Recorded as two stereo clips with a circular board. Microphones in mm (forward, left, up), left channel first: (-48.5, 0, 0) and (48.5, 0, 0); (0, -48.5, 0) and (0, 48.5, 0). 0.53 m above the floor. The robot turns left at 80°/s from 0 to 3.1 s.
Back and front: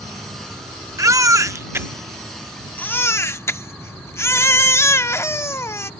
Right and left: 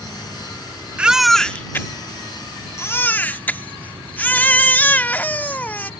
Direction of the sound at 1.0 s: 20° left.